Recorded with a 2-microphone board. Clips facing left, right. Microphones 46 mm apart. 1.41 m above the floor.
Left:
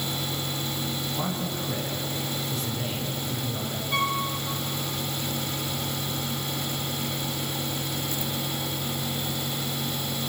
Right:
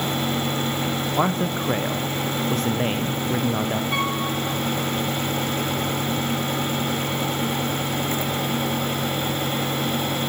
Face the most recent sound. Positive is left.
turn(degrees=-20)  # may be behind; listen again after turning